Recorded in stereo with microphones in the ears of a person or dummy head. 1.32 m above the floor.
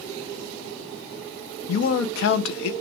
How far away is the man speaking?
About 0.7 m.